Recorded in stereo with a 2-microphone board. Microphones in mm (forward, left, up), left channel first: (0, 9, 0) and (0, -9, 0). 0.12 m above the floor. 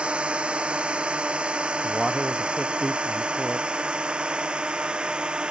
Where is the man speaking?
10° left (ahead or behind).